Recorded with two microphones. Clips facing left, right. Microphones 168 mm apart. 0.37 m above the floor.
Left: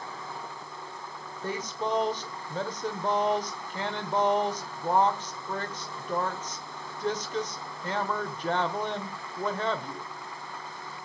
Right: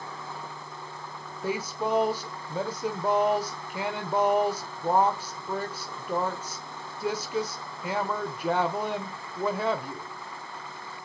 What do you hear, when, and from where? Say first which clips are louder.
1.4 s a woman speaking: right 3 dB; 10° right (ahead or behind), 1.2 m